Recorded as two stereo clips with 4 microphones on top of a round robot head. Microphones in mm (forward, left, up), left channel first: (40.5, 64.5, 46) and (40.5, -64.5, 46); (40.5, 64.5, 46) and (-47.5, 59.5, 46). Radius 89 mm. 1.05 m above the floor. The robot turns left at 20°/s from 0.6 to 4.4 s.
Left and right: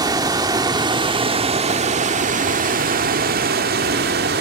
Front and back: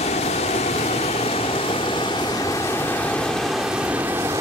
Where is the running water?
30° right, 1.3 m; by 4.4 s 105° right, 1.3 m.